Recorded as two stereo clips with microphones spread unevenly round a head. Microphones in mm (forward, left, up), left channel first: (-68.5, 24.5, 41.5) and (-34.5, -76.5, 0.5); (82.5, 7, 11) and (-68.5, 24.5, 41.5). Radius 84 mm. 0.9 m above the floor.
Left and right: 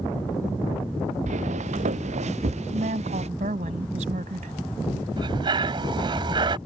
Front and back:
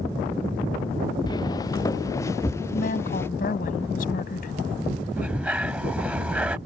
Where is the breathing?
125° right.